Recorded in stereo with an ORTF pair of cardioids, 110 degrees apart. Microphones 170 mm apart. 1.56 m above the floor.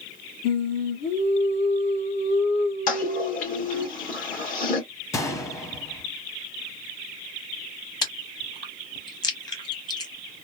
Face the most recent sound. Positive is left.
turn(degrees=25)